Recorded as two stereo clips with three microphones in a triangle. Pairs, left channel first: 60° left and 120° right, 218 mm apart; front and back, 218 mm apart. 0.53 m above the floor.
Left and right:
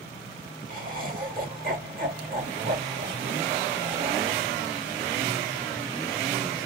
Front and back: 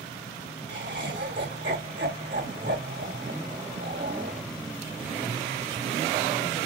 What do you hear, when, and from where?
0.7 s laughter: 160° right, 2 m